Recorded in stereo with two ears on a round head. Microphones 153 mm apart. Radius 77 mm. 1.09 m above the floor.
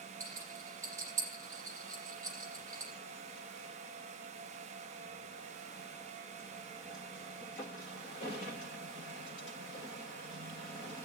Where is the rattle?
15° right (ahead or behind), 6.5 m.